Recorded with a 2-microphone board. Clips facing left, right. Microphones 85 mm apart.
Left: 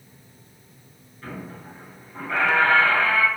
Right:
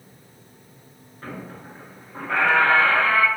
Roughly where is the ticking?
I don't hear ticking.